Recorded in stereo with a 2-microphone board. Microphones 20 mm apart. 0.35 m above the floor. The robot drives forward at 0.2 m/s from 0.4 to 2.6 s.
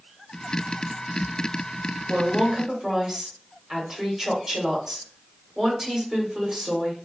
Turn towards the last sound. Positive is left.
turn(degrees=-30)  # may be behind; listen again after turning